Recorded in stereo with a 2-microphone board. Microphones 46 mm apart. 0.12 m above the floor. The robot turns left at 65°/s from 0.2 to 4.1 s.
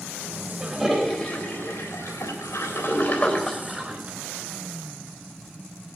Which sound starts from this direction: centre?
A toilet flushing, at 0.6 s.